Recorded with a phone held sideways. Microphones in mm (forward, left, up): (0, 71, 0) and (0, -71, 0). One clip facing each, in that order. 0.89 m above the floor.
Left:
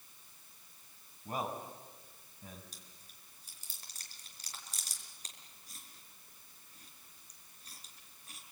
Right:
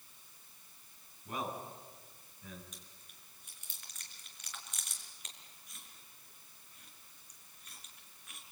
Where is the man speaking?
40° left (ahead or behind), 7 m.